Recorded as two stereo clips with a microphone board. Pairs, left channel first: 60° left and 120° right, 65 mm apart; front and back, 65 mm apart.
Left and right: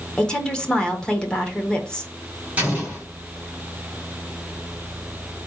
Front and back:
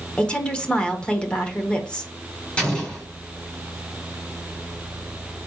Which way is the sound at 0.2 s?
20° left.